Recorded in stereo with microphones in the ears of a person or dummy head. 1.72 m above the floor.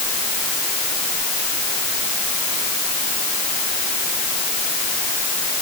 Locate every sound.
Only background noise.